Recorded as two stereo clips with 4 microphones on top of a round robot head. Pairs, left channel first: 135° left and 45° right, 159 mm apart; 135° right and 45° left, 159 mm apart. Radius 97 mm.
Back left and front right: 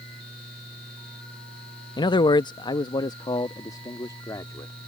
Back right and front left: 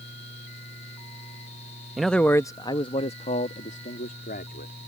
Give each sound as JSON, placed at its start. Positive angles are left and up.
{"t": 2.0, "sound": "a man speaking", "azimuth_deg": 130}